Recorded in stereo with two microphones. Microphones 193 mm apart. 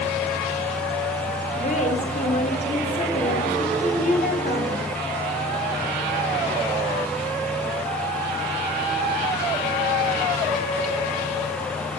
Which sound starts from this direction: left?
A woman speaking, at 1.6 s.